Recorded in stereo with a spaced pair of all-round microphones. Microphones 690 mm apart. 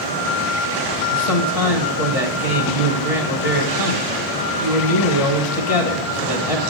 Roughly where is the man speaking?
Left.